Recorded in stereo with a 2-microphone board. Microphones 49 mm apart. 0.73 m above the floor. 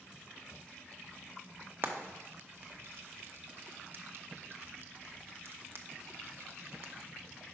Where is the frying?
50° right (ahead or behind), 0.6 m.